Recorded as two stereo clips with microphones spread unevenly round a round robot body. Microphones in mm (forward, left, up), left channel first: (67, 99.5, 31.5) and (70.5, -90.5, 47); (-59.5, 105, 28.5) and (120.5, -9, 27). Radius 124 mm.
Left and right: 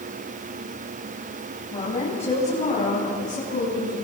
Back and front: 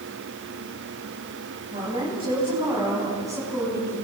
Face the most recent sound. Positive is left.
turn(degrees=50)